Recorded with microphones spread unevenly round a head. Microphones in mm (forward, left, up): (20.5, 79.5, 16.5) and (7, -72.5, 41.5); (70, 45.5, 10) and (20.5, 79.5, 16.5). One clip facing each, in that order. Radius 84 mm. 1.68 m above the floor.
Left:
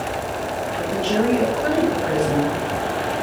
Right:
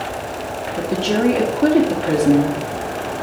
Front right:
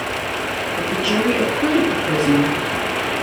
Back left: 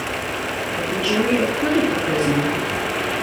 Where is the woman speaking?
125° right, 1.9 m.